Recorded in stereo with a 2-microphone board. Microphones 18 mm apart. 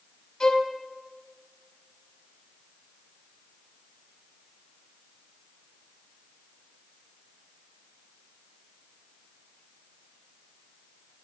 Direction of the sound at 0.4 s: 55° left (ahead or behind).